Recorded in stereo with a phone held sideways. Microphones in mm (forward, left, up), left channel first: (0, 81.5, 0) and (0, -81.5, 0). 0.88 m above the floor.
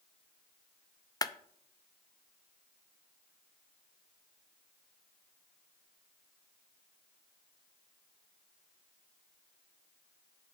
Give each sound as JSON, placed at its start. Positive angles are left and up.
{"t": 1.2, "sound": "a clap", "side_deg": 25, "distance_m": 0.5}